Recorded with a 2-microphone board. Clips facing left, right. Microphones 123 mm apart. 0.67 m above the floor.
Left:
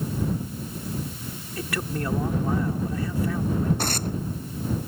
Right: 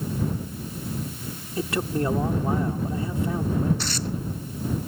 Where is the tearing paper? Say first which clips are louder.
Left 2 dB; 50° left (ahead or behind).